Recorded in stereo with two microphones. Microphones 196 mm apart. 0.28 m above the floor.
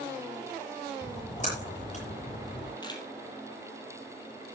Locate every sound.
1.0 s a splash: 35° left (ahead or behind), 6.5 m
2.8 s a camera shutter: 20° left (ahead or behind), 3.5 m